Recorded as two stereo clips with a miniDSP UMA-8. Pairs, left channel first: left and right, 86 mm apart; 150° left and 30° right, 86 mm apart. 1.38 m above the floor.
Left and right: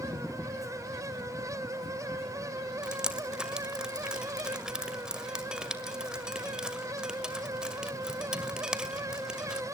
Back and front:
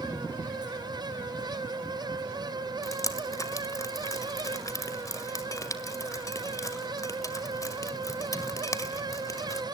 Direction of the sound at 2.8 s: 170° right.